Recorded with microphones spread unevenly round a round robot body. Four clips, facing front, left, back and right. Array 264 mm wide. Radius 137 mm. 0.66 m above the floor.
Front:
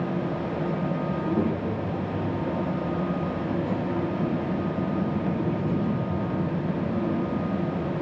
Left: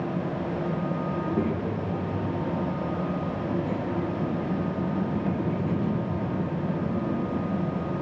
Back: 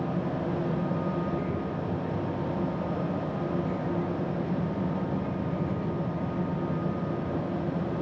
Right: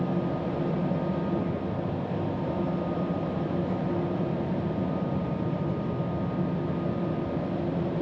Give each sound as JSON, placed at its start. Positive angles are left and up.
{"t": 1.1, "sound": "a child speaking", "azimuth_deg": 50, "distance_m": 9.0}